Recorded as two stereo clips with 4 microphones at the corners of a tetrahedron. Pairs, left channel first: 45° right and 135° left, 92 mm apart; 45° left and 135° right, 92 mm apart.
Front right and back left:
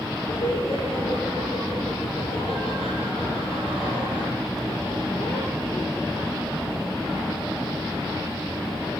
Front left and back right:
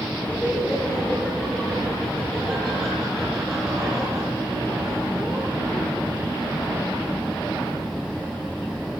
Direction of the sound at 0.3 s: 25° right.